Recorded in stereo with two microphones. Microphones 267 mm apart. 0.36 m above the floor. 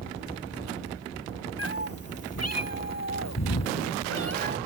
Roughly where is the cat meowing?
Left.